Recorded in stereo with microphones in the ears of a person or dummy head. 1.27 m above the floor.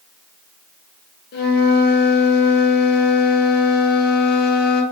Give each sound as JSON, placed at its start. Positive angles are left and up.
{"t": 1.3, "sound": "a flute", "side_deg": 55, "distance_m": 0.8}